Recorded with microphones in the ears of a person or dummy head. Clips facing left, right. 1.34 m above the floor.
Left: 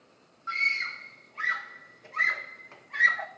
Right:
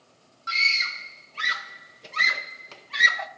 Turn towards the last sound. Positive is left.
turn(degrees=-45)  # may be behind; listen again after turning